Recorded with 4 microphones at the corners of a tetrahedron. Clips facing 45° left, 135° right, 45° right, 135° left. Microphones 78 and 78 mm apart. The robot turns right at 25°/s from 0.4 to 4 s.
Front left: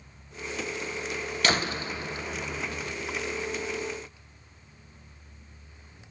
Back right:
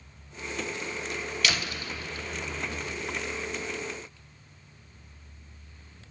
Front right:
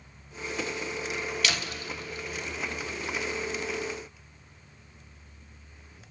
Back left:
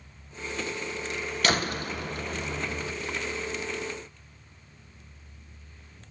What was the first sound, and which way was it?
A door slam, 95° left.